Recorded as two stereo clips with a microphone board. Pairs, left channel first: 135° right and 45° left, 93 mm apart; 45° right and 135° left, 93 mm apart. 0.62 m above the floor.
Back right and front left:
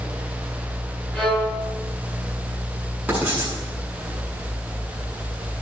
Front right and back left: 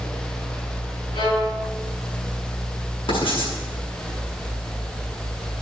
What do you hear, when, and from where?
1.1 s a violin: 60° right, 7 m
3.1 s writing: 30° right, 7.5 m